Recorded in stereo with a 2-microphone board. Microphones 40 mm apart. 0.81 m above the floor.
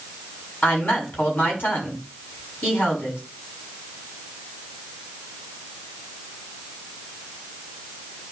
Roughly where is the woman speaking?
Left.